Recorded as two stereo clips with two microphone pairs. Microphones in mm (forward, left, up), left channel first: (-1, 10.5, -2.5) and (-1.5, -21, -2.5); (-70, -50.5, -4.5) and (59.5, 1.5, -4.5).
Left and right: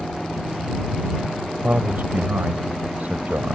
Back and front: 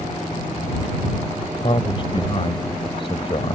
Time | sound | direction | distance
1.6 | a man speaking | 110° right | ?